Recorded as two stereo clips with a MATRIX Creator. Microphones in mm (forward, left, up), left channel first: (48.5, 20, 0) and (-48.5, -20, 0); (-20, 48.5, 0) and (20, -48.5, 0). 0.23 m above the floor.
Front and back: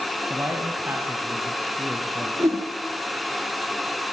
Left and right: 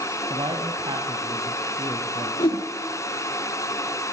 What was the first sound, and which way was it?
A man speaking, 95° right.